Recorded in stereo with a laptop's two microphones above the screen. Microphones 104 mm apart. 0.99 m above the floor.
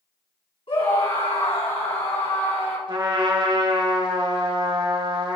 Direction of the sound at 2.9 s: 45° right (ahead or behind).